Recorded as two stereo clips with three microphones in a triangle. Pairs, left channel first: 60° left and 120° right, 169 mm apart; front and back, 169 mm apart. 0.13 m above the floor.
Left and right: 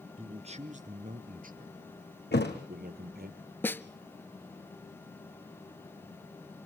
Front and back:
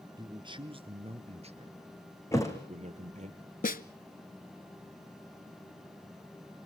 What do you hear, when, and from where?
0.2 s a man speaking: 135° right, 1.5 m
2.3 s a thud: 75° left, 3.5 m
3.6 s a snare drum: 15° right, 0.7 m